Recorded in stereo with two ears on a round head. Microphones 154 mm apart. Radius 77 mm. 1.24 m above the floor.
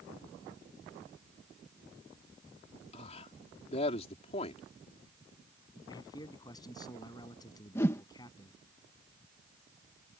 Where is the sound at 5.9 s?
20° left (ahead or behind).